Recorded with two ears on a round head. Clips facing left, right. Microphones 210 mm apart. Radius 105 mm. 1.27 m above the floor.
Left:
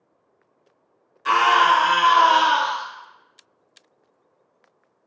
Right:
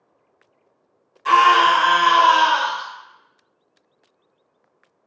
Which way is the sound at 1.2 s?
15° left (ahead or behind).